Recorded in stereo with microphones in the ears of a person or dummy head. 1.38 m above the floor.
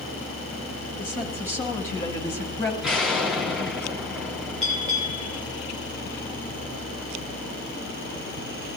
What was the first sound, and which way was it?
A woman speaking, 10° left (ahead or behind).